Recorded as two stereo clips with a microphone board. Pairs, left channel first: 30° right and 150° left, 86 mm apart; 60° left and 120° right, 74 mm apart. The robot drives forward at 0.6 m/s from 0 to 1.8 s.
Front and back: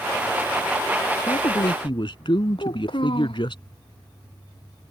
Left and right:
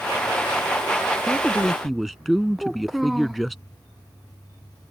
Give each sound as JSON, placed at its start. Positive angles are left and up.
{"t": 1.3, "sound": "a man speaking", "azimuth_deg": -30}
{"t": 2.6, "sound": "a child speaking", "azimuth_deg": -30}